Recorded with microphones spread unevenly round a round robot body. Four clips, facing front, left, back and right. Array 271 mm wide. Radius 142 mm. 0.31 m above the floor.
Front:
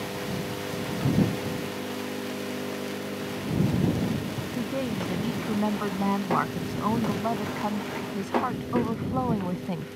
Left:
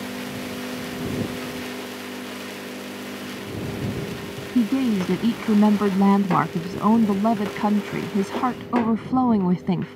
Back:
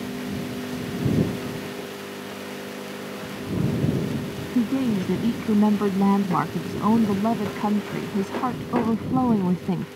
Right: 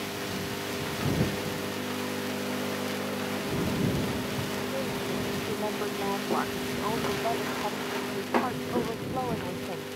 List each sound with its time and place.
4.5 s a woman speaking: 100° left